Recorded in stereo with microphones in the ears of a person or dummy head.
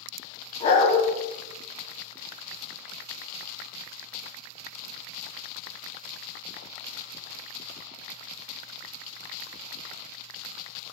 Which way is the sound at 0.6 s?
30° left (ahead or behind).